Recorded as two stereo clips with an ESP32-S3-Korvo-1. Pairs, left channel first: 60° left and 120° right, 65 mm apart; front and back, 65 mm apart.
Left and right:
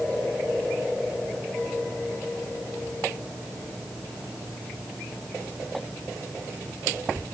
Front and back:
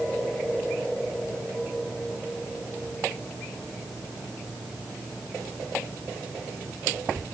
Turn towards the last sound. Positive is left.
No sound to turn to.